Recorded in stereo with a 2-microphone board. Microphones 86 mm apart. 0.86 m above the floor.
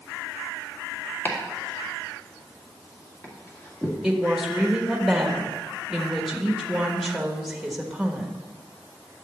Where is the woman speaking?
5° right (ahead or behind), 1.4 m.